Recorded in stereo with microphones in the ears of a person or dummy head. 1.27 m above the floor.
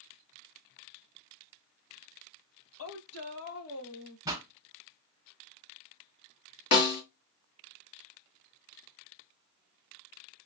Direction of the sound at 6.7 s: 60° left (ahead or behind).